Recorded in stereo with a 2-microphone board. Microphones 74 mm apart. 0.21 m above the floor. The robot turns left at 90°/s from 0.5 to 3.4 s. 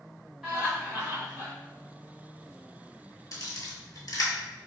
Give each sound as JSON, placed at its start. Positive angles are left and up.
{"t": 0.4, "sound": "laughter", "azimuth_deg": -10, "distance_m": 1.5}
{"t": 3.3, "sound": "a camera shutter", "side_deg": 50, "distance_m": 0.7}